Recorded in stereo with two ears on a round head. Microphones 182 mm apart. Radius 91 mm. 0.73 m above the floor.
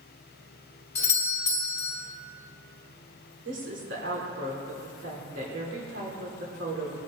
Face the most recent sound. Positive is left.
turn(degrees=-60)  # may be behind; listen again after turning